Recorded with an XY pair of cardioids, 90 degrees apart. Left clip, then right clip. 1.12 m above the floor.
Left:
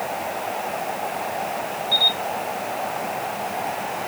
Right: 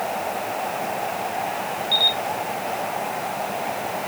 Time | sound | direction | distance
1.9 | a camera shutter | 35° right | 1.5 m